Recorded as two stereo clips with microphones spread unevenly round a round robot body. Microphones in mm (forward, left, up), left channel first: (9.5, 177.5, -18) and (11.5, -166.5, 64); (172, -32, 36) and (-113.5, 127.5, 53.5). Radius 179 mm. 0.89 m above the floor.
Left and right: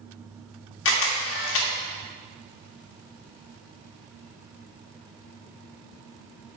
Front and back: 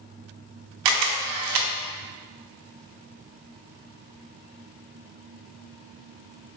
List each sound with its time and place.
0.8 s a camera shutter: 135° left, 0.6 m